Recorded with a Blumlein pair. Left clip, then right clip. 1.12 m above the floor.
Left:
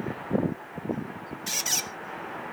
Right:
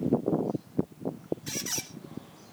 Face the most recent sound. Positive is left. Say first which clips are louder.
# left 10 dB
turn(degrees=65)